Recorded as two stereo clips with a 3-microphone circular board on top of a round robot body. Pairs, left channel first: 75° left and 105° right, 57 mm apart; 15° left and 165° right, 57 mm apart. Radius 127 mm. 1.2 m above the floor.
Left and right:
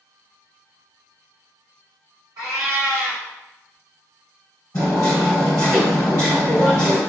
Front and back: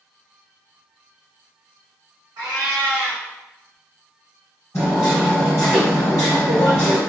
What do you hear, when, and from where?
2.4 s a cat meowing: 135° right, 1.5 m
4.7 s hammering: 55° left, 1.4 m